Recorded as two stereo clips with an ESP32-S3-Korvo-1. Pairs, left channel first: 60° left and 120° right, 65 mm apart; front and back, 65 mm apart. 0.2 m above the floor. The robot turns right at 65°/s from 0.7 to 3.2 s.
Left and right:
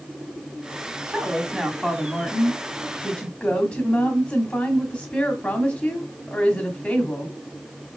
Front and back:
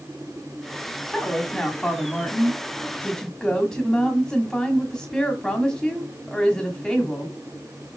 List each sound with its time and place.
1.1 s a woman speaking: 80° right, 1.6 m; by 7.3 s 55° left, 1.6 m